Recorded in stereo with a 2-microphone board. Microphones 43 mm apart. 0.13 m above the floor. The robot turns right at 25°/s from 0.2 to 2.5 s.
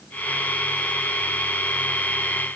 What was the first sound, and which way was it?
Only background noise.